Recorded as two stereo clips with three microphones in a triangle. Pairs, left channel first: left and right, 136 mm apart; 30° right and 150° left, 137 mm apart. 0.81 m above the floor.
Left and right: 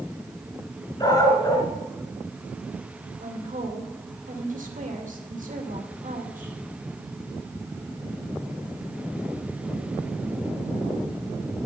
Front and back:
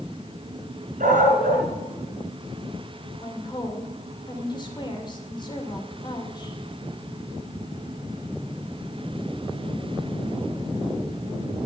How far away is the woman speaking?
About 2.5 m.